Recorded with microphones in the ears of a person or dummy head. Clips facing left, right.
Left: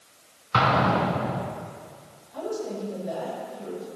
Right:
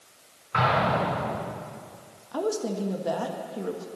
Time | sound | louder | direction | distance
0.5 | an explosion | left 2 dB | 65° left (ahead or behind) | 4 m
2.3 | a woman speaking | right 3 dB | 75° right (ahead or behind) | 1.6 m